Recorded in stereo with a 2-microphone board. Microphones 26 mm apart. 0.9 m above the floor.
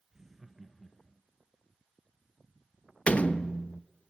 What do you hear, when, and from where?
0.1 s laughter: 20° right (ahead or behind), 1.0 m; by 1.2 s 20° left (ahead or behind), 1.1 m
3.1 s a door slam: 55° left (ahead or behind), 0.6 m